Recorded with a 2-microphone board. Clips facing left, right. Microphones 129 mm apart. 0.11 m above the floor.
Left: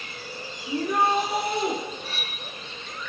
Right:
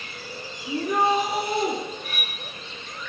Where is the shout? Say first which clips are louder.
Right 1 dB; centre (ahead or behind), 4 m.